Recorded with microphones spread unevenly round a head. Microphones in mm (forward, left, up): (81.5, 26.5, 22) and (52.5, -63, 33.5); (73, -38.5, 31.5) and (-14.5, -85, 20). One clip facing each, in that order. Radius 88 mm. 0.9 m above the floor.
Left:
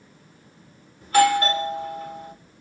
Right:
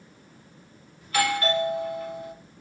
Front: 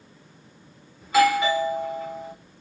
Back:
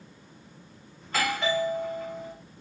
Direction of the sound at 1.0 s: 120° left.